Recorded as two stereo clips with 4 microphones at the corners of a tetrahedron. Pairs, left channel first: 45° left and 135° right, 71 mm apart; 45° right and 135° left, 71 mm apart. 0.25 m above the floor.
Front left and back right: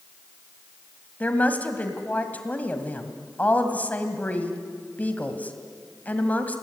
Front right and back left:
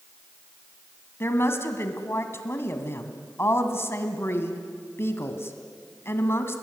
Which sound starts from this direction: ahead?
A woman speaking, at 1.2 s.